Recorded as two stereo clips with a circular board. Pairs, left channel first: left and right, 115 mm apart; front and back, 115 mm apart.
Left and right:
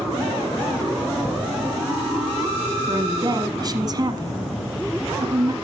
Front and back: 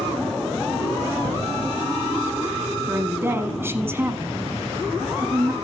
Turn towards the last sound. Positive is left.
turn(degrees=-120)